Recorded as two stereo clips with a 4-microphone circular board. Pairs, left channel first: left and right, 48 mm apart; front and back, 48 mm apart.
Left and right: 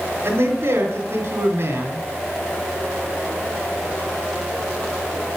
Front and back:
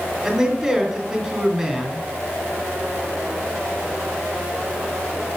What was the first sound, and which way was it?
A man speaking, 100° right.